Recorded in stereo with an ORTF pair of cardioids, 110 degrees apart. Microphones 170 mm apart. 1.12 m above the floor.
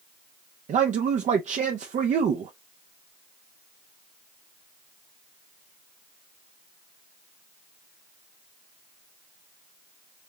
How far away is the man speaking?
About 0.7 m.